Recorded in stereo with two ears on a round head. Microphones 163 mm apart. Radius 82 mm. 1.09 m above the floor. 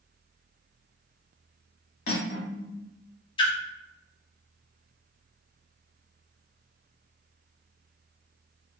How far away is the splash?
About 0.8 m.